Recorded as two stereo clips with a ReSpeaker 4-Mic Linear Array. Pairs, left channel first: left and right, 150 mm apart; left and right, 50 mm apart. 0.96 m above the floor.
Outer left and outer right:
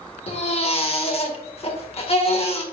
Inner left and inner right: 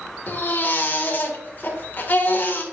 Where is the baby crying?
40° left (ahead or behind), 1.9 m.